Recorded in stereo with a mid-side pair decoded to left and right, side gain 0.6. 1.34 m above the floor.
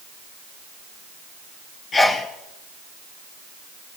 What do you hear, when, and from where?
1.9 s a sneeze: 30° left, 1.7 m